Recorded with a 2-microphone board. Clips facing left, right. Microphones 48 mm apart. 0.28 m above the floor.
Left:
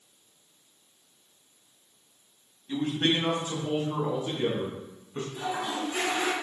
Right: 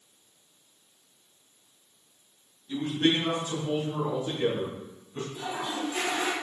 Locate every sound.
2.7 s a man speaking: 50° left (ahead or behind), 2.5 m; by 5.2 s 45° left (ahead or behind), 3.5 m
5.3 s a toilet flushing: 50° left (ahead or behind), 2.5 m